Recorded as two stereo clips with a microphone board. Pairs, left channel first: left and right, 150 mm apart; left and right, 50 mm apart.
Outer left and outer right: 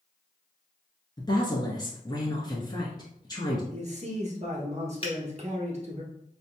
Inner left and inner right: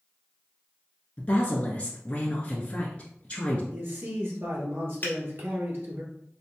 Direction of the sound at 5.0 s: 40° left (ahead or behind).